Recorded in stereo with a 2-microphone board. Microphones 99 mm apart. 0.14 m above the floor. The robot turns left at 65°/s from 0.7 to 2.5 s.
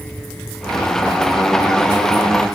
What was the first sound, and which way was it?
Only background noise.